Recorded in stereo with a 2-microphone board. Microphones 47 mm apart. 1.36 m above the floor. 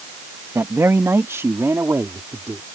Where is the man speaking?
80° right; by 2.6 s 85° right.